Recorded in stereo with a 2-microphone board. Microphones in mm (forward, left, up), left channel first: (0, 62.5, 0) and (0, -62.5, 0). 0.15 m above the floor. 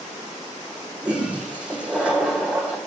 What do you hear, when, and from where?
1.0 s a toilet flushing: 10° right (ahead or behind), 1.3 m